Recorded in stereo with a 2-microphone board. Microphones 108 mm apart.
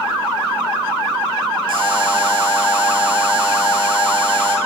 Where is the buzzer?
55° right (ahead or behind), 2.5 m.